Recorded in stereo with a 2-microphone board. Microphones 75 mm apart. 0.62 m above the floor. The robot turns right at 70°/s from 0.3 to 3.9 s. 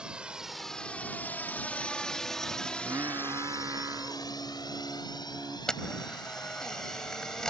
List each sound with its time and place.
0.0 s a drone: 10° right (ahead or behind); by 7.5 s 70° left (ahead or behind)
2.7 s singing: 145° right; by 5.6 s 60° right
5.7 s a camera shutter: 10° left (ahead or behind)